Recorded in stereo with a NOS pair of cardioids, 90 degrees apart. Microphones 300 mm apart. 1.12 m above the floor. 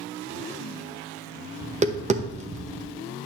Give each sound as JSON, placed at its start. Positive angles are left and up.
{"t": 1.6, "sound": "tapping", "azimuth_deg": -25, "distance_m": 0.8}